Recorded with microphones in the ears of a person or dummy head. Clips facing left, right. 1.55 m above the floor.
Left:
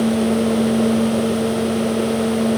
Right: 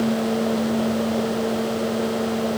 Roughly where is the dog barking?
I don't hear a dog barking.